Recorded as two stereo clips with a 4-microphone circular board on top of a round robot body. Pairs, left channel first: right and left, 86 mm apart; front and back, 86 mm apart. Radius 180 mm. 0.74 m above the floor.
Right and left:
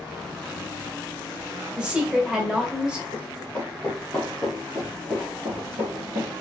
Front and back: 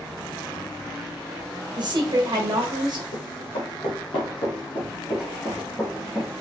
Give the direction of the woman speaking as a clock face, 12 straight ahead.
6 o'clock.